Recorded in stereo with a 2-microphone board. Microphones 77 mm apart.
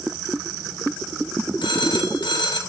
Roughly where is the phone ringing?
Left.